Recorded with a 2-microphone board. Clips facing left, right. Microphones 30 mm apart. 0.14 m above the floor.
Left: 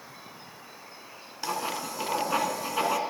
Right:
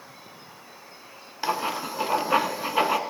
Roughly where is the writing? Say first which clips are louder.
Right 4 dB; right.